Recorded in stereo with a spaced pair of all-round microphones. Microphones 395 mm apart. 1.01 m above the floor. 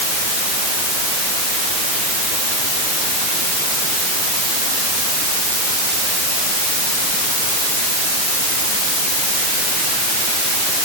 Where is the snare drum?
I don't hear a snare drum.